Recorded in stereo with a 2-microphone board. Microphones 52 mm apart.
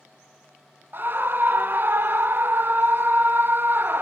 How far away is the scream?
About 0.6 m.